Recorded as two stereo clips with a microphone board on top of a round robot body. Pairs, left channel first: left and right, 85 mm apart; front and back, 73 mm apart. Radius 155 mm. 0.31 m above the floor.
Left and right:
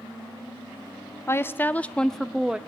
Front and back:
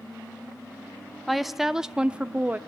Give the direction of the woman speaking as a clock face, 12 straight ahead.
9 o'clock.